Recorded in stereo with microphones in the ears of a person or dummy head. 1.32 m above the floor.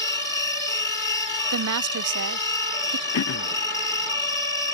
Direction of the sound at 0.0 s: 20° left (ahead or behind).